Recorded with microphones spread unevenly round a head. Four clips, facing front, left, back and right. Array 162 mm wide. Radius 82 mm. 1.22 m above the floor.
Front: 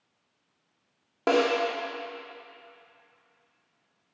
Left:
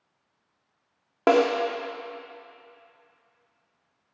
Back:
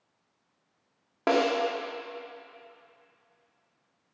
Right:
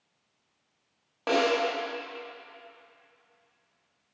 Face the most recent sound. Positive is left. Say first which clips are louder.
# left 6 dB, front 1 dB
turn(degrees=80)